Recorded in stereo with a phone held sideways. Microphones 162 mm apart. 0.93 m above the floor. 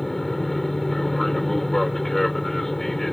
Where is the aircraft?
Centre (ahead or behind).